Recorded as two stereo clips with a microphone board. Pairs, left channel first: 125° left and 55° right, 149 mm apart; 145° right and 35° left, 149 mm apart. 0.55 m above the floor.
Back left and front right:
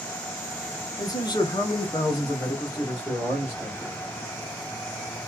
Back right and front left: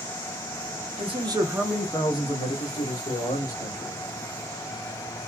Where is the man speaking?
65° left, 0.9 m; by 4.0 s 155° right, 1.9 m.